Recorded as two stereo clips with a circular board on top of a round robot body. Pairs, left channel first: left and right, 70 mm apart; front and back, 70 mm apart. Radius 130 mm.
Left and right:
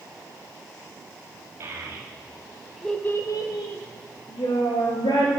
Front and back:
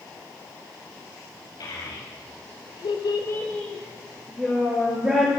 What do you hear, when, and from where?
1.6 s a child speaking: 35° right, 1.7 m; by 5.3 s 110° left, 2.5 m